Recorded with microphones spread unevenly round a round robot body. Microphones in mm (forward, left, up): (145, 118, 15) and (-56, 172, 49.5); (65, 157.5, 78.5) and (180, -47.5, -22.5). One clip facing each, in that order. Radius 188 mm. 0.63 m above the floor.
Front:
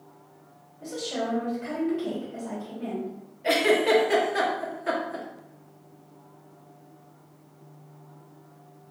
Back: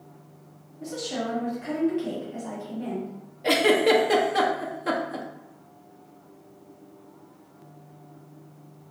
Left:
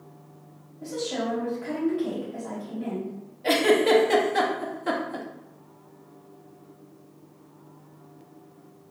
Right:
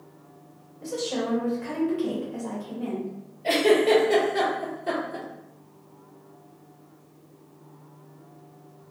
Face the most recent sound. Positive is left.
turn(degrees=130)